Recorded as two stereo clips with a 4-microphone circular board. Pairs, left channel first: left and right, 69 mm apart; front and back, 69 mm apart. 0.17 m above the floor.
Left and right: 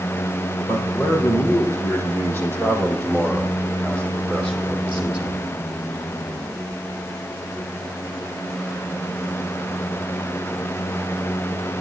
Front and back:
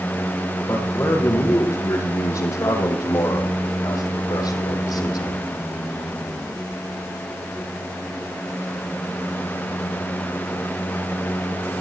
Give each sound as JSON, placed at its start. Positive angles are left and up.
{"t": 0.7, "sound": "a man speaking", "azimuth_deg": 50, "distance_m": 6.0}